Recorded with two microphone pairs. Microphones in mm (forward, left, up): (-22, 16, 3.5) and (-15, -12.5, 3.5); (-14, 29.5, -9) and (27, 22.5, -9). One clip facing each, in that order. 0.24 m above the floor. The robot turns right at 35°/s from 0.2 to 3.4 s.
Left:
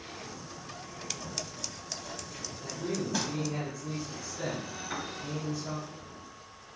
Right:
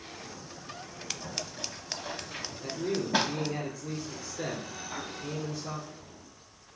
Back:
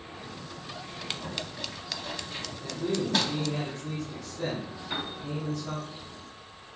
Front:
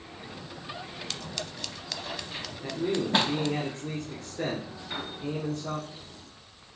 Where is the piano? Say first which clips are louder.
Left 2 dB, back 2 dB; 85° left, 3.5 m.